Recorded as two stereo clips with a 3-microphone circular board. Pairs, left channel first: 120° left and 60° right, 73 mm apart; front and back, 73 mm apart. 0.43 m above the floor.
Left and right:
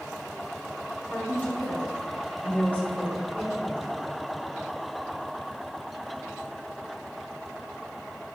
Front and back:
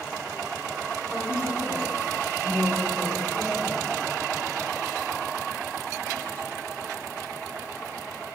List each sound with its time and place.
1.1 s a woman speaking: 55° left, 2 m